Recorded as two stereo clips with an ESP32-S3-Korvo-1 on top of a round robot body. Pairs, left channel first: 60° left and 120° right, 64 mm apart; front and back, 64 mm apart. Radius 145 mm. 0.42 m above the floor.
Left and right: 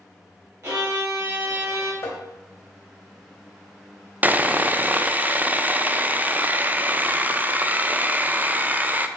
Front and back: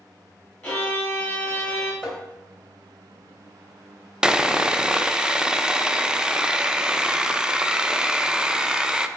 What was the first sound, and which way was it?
A violin, 75° right.